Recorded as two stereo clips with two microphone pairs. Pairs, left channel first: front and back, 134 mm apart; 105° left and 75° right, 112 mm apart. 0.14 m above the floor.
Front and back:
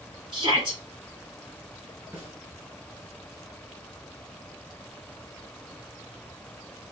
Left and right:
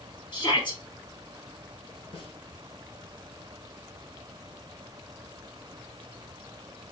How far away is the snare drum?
About 2 m.